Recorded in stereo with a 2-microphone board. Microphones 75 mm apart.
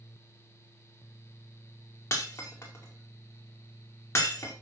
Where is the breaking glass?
35° left (ahead or behind), 5 m.